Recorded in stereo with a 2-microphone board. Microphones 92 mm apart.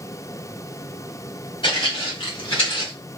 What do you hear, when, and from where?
1.6 s footsteps: 60° left (ahead or behind), 2 m; by 2.9 s 65° left (ahead or behind), 3 m